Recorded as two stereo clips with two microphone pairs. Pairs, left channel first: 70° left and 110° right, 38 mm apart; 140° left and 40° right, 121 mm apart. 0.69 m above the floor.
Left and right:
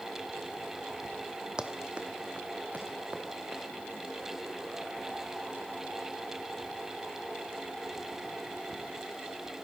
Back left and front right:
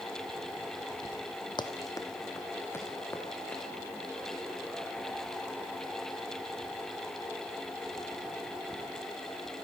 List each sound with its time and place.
1.6 s running footsteps: 175° right, 1.5 m; by 3.6 s 145° right, 4 m